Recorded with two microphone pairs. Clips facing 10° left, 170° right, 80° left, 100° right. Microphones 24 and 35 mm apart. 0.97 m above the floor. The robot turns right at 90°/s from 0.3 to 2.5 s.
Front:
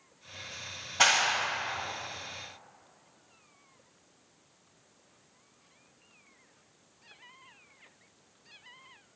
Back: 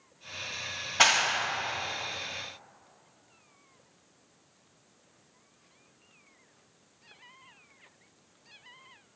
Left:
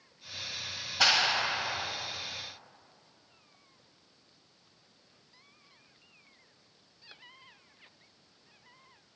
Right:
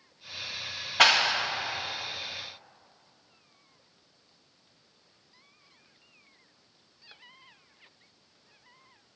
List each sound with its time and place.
1.0 s a clap: 110° right, 1.4 m; by 1.5 s 65° right, 1.4 m